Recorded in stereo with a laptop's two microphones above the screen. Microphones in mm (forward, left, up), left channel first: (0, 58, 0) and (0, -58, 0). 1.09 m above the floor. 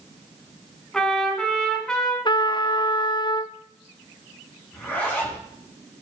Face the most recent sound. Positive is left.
turn(degrees=10)  # may be behind; listen again after turning